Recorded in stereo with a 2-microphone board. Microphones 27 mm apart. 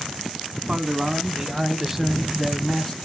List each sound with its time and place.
0.7 s a man speaking: 30° right (ahead or behind), 1.6 m; by 3.0 s 5° left (ahead or behind), 1.5 m